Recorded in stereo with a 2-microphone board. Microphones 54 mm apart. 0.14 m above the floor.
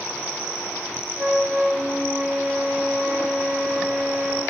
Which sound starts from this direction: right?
A flute, at 1.2 s.